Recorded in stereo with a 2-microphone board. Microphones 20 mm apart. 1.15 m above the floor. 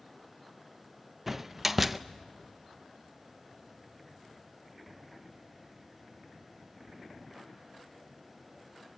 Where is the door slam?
20° right (ahead or behind), 0.5 m.